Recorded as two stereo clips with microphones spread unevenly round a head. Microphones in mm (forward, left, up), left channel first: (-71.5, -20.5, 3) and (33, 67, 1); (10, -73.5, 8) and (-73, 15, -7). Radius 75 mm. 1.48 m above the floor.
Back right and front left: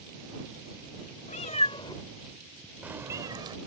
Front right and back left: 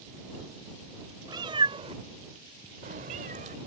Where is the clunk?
No clunk in this recording.